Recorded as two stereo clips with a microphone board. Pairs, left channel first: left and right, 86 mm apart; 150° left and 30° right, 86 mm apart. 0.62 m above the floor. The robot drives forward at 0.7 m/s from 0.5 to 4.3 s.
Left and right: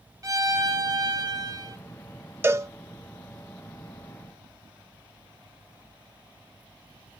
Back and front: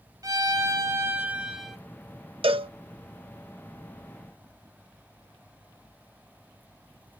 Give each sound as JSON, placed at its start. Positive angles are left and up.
{"t": 0.2, "sound": "a violin", "azimuth_deg": -55, "distance_m": 1.2}
{"t": 2.4, "sound": "a cowbell", "azimuth_deg": -25, "distance_m": 1.0}